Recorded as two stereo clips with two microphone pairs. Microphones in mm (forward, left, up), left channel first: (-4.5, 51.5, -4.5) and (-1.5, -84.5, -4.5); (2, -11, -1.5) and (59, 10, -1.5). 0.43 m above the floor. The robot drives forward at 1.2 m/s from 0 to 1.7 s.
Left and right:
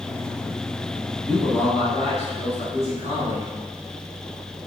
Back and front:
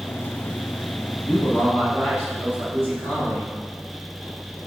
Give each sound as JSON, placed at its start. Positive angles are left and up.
{"t": 1.2, "sound": "a man speaking", "azimuth_deg": 155, "distance_m": 2.5}